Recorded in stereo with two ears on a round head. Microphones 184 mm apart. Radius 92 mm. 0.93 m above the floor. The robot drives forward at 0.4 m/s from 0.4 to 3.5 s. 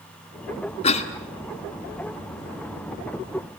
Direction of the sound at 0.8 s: 30° left (ahead or behind).